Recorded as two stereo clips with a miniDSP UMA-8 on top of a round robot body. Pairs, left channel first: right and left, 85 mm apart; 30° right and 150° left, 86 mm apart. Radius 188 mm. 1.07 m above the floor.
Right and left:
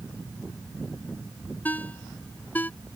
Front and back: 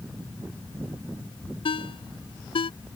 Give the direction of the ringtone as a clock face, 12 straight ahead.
1 o'clock.